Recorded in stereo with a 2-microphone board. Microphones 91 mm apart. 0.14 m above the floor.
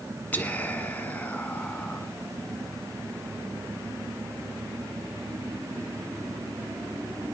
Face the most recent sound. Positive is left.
turn(degrees=20)  # may be behind; listen again after turning